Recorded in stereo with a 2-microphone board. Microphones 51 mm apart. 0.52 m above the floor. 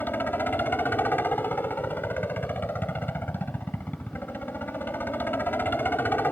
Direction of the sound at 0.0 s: 40° left (ahead or behind).